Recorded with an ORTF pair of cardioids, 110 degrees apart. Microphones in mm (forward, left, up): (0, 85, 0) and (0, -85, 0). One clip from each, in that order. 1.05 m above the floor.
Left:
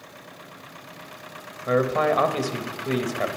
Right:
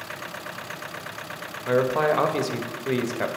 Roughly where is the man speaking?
Ahead.